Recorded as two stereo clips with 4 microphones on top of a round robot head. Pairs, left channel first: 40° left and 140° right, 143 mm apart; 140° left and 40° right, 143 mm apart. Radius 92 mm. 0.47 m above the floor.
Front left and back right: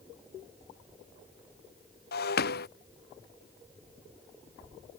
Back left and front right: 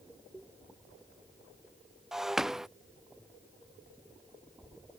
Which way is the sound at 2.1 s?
50° left.